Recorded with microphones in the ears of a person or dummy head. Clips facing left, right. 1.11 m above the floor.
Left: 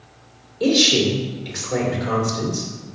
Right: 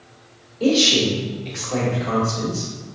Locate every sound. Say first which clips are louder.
0.6 s a woman speaking: even; 15° left (ahead or behind), 2.5 m